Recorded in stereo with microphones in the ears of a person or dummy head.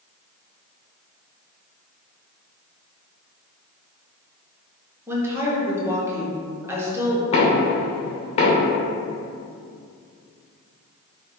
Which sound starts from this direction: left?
Knocking, at 7.3 s.